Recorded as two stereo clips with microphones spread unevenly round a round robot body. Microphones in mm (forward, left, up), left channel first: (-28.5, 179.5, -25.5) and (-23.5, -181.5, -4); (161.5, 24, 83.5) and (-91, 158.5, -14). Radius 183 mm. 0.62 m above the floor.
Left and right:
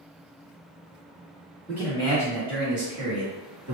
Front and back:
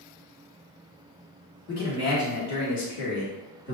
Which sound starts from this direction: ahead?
A man speaking, at 1.7 s.